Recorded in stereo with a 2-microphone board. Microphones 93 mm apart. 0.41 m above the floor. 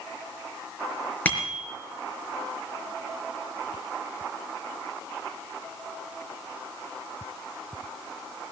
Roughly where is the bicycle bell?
Centre.